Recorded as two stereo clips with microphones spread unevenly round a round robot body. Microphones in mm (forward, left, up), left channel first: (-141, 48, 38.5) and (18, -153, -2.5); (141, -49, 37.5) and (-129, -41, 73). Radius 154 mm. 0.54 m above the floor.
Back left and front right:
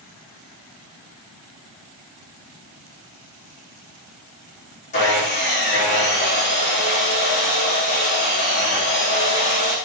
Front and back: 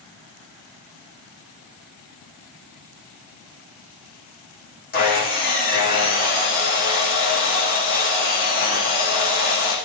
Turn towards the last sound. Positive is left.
turn(degrees=60)